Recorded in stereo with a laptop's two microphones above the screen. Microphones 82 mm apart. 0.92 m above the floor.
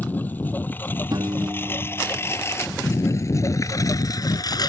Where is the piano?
60° right (ahead or behind).